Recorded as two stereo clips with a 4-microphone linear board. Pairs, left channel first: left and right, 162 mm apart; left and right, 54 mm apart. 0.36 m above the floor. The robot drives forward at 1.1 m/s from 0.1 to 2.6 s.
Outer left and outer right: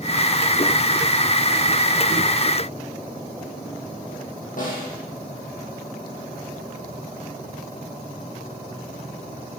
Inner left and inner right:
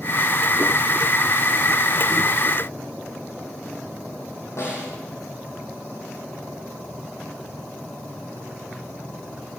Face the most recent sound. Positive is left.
turn(degrees=55)  # may be behind; listen again after turning